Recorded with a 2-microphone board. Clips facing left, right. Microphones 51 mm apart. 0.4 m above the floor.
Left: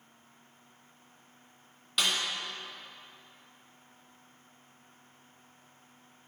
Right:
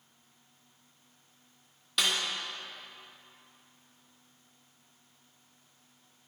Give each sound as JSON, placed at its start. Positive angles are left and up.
{"t": 2.0, "sound": "a snare drum", "side_deg": 0, "distance_m": 1.7}